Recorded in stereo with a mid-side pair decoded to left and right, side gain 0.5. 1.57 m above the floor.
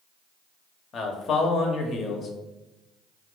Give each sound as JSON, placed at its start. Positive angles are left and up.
{"t": 0.9, "sound": "a man speaking", "azimuth_deg": 50, "distance_m": 0.8}